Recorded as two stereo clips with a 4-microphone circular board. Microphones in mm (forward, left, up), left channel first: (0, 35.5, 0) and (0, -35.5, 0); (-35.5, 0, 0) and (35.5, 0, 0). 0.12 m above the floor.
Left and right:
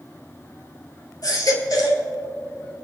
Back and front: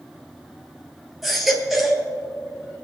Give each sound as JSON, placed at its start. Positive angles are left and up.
{"t": 1.2, "sound": "a baby crying", "azimuth_deg": 85, "distance_m": 1.9}